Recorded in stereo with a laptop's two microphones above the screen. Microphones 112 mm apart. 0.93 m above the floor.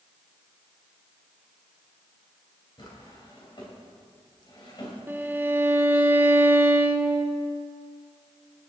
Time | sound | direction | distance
2.8 | a drawer | 45° left (ahead or behind) | 3 m
5.1 | a violin | 20° right (ahead or behind) | 0.9 m